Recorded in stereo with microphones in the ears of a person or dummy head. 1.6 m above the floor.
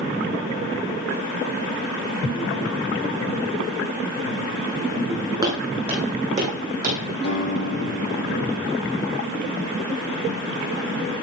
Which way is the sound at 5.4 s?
20° right (ahead or behind).